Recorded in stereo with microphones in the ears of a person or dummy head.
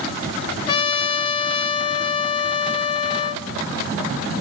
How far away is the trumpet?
About 0.8 m.